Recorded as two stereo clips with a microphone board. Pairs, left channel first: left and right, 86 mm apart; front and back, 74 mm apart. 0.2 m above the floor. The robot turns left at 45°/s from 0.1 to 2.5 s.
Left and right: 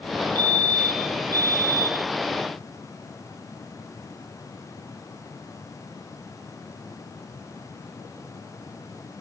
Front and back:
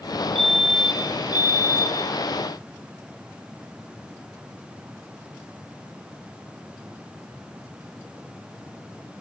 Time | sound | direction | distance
0.3 | a fire alarm | 75° right | 4 m